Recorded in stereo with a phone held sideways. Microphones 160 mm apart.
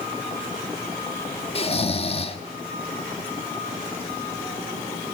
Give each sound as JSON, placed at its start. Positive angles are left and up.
{"t": 1.6, "sound": "snoring", "side_deg": 40, "distance_m": 1.6}